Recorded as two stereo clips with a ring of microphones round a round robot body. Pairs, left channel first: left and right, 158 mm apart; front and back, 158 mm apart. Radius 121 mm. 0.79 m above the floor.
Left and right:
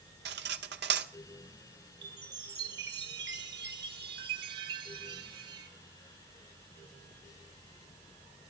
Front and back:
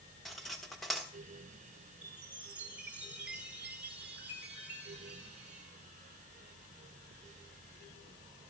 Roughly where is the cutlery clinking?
Right.